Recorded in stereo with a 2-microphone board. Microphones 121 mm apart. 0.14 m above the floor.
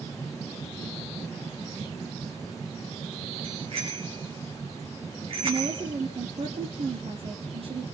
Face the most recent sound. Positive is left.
turn(degrees=-50)  # may be behind; listen again after turning